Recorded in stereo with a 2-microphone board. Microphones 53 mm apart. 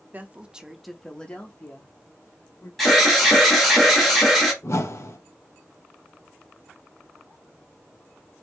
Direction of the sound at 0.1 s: 35° right (ahead or behind).